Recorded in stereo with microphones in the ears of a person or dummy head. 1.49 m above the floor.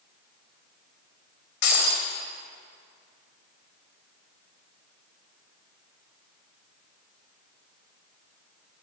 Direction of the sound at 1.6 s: 60° left (ahead or behind).